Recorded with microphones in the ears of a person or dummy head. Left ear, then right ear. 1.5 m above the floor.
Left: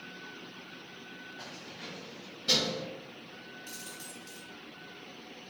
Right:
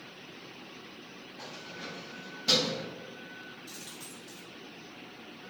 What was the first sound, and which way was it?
Keys jangling, 5° left (ahead or behind).